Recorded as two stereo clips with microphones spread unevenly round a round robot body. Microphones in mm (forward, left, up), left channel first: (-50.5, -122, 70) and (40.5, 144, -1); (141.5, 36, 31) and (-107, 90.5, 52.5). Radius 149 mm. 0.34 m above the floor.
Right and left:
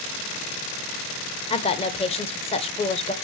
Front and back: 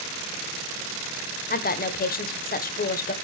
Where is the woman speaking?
30° right, 1.2 m.